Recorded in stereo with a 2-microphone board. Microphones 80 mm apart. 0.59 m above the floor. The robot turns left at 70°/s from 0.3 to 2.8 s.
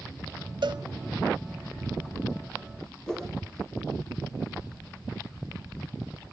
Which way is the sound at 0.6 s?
70° right (ahead or behind).